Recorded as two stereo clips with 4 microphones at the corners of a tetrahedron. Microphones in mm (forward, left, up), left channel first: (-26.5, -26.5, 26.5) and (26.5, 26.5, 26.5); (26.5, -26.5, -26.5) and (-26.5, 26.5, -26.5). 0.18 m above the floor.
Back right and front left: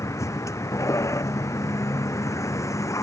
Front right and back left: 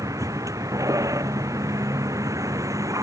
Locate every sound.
0.0 s a vehicle: straight behind